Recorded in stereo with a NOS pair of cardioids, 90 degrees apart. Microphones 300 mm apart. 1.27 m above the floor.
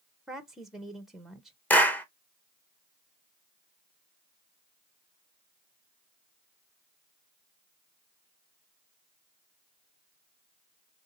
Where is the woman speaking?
Straight ahead, 0.7 m.